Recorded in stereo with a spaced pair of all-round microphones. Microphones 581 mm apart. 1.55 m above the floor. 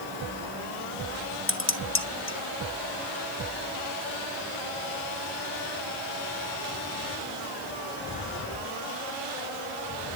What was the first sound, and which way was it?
Dishes clattering, 20° left (ahead or behind).